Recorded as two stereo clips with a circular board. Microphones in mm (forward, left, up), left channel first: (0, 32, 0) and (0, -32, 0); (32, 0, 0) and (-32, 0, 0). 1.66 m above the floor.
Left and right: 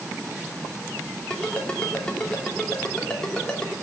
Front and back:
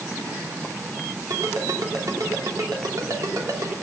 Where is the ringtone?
165° left, 2.5 m.